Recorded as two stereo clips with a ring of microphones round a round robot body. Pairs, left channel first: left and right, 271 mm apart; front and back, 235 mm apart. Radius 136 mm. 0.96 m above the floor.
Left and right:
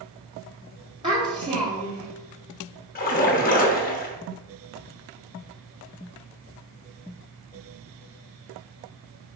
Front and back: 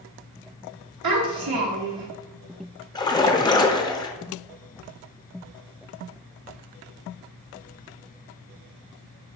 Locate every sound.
1.0 s a child speaking: 165° right, 1.0 m
3.0 s a splash: 60° left, 0.7 m